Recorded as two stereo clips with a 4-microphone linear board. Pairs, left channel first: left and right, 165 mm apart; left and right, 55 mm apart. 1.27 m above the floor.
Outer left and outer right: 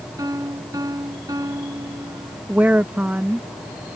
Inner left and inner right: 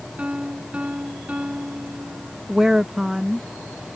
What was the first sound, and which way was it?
A piano, 20° right (ahead or behind).